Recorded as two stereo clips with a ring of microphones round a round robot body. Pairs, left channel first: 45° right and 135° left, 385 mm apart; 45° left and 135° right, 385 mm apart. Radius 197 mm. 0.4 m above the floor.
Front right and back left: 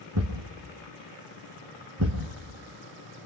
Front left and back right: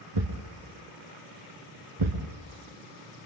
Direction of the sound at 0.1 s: 170° right.